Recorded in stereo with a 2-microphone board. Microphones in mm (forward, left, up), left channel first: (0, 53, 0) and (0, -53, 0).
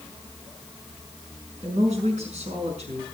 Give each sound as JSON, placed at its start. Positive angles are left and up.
{"t": 1.6, "sound": "a woman speaking", "side_deg": -80, "distance_m": 5.5}